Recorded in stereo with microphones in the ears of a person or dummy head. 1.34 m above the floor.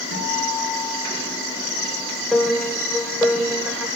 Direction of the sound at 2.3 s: Centre (ahead or behind).